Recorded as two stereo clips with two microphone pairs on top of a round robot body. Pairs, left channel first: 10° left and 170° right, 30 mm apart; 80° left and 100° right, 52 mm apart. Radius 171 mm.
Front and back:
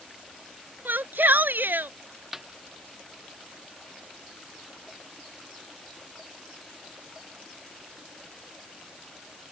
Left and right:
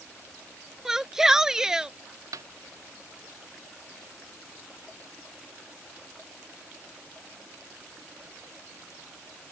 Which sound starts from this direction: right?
A snare drum, at 2.3 s.